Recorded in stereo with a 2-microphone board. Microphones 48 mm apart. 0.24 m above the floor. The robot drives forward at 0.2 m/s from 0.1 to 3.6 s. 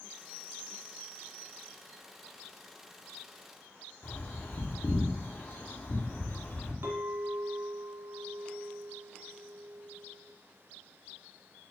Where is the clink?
55° right (ahead or behind), 1.9 m.